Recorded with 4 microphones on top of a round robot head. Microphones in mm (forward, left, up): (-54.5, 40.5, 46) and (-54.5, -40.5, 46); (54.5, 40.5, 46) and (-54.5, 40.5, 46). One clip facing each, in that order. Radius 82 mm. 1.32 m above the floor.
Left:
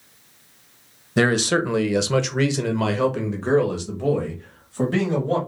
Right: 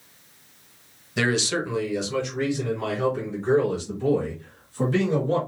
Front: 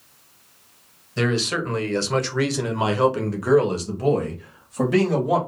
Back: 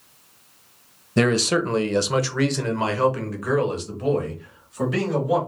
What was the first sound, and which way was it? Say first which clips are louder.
A man speaking: left 5 dB, back 4 dB; 140° left.